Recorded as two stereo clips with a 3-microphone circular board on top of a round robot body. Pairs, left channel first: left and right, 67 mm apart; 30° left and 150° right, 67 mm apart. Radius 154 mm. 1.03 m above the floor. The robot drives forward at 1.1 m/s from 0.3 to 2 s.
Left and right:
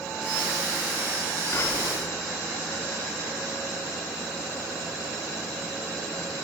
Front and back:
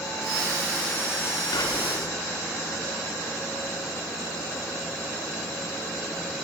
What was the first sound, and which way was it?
Whispering, 40° left.